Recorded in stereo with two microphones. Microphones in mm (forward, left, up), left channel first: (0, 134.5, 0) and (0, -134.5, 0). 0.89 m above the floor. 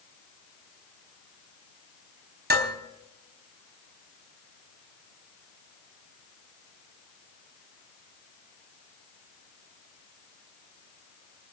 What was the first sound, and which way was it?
Dishes clattering, 35° right (ahead or behind).